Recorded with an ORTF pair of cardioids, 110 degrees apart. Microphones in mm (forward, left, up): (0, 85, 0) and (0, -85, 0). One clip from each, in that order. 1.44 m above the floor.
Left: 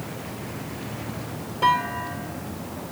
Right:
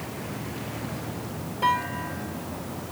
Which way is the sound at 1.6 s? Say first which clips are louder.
Left 3 dB; 20° left.